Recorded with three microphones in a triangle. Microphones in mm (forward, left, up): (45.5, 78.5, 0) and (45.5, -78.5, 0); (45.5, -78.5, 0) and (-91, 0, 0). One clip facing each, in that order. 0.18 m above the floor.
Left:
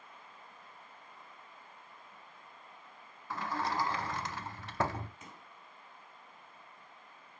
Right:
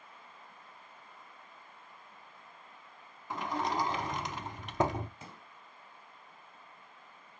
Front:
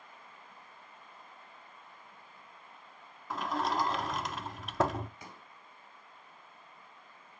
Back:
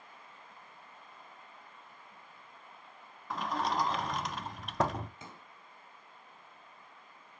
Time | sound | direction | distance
3.3 | a sliding door | 115° right | 0.5 m
5.2 | a pop | 145° right | 2 m